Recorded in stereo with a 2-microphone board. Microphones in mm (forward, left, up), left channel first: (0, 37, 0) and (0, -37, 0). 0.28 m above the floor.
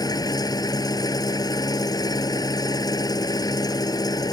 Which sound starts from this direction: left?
An engine running, at 0.0 s.